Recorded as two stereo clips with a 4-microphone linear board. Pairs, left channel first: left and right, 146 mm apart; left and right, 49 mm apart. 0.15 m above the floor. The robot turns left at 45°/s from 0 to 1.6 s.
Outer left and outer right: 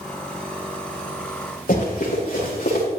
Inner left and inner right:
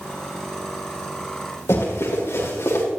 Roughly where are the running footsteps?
Left.